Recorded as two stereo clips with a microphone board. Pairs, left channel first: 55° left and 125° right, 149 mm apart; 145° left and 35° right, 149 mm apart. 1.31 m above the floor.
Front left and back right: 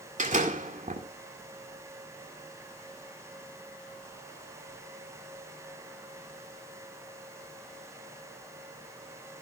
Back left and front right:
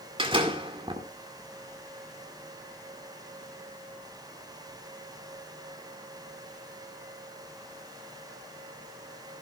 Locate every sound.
0.2 s a door slam: 90° right, 2 m